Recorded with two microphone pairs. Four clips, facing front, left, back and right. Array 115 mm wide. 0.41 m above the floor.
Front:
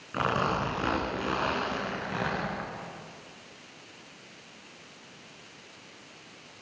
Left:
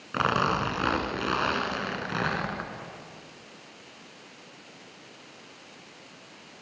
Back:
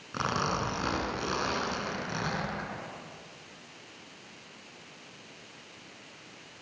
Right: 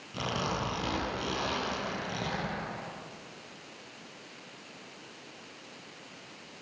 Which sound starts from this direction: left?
A zipper, at 0.1 s.